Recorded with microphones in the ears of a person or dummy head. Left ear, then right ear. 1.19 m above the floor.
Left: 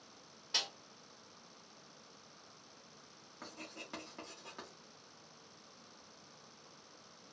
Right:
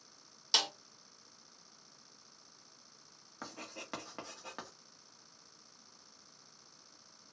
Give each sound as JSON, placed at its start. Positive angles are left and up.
{"t": 0.5, "sound": "a snare drum", "side_deg": -65, "distance_m": 1.6}
{"t": 3.4, "sound": "writing", "side_deg": -20, "distance_m": 0.9}